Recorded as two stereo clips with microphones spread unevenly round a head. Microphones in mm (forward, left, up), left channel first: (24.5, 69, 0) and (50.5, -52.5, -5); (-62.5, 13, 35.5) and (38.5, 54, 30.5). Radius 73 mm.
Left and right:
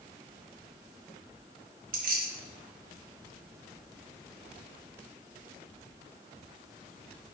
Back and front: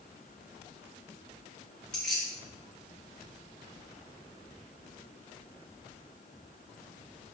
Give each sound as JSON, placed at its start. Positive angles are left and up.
{"t": 1.9, "sound": "keys jangling", "azimuth_deg": -75, "distance_m": 0.8}